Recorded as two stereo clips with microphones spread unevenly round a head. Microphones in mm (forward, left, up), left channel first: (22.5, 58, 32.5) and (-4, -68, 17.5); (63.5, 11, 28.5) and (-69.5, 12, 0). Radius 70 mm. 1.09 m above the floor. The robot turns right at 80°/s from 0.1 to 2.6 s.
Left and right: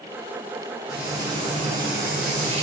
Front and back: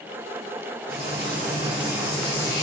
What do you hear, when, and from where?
0.9 s frying: 170° left, 2.5 m; by 2.6 s 55° right, 2.5 m